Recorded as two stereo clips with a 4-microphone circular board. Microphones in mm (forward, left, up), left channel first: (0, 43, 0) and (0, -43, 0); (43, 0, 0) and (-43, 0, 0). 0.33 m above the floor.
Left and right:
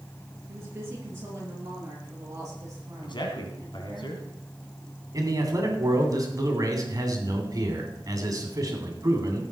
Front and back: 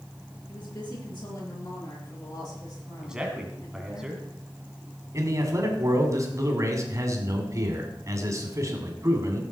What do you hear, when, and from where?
0.5 s a woman speaking: 30° right, 5.5 m; by 4.0 s 40° right, 9.5 m
3.0 s a man speaking: 100° left, 2.5 m
5.1 s a man speaking: 130° right, 2.5 m